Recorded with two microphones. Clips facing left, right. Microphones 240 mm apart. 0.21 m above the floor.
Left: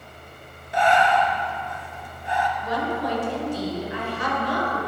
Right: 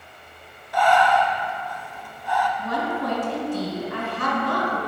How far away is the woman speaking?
About 1.8 m.